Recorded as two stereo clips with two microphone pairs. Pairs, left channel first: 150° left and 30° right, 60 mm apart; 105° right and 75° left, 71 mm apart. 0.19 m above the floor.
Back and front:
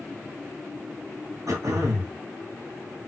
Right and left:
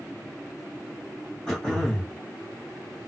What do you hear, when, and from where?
1.5 s throat clearing: 20° right, 3 m